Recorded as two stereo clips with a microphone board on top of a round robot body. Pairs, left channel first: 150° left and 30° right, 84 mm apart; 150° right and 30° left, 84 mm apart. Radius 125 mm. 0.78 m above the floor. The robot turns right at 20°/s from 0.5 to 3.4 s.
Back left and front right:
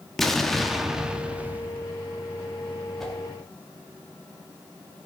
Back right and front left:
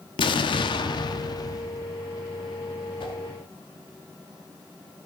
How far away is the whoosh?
About 1.8 m.